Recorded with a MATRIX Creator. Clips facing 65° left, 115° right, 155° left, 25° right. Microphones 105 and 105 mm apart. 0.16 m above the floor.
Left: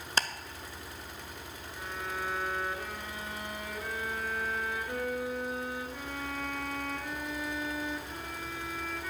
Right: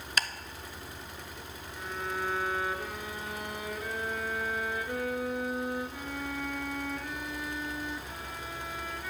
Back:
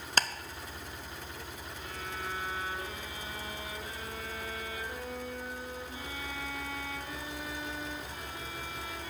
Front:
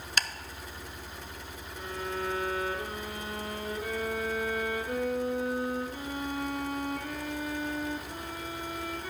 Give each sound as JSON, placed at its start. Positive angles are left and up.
{"t": 0.2, "sound": "ticking", "azimuth_deg": 115, "distance_m": 0.5}
{"t": 1.8, "sound": "a violin", "azimuth_deg": -25, "distance_m": 1.1}